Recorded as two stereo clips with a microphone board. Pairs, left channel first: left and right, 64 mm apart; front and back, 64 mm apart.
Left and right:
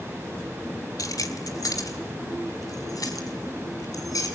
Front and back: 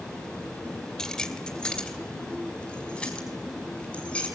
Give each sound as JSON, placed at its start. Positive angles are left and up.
{"t": 1.0, "sound": "keys jangling", "azimuth_deg": 80, "distance_m": 2.0}